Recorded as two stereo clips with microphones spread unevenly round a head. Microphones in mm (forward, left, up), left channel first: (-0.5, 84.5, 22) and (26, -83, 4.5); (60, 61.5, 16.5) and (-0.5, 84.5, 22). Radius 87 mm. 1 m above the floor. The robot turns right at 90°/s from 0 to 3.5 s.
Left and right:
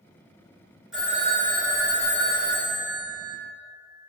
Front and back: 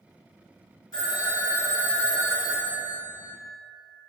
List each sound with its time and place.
0.9 s a phone ringing: 5° left, 1.7 m; by 3.3 s 135° right, 1.7 m